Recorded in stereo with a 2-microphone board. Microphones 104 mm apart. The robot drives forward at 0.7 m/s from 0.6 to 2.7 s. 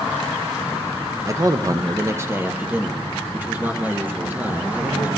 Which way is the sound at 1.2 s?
30° right (ahead or behind).